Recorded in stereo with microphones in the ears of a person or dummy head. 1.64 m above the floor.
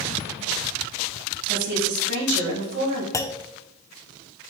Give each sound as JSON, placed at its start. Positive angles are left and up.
{"t": 1.5, "sound": "a woman speaking", "side_deg": -60, "distance_m": 4.0}
{"t": 3.1, "sound": "a clunk", "side_deg": 10, "distance_m": 0.5}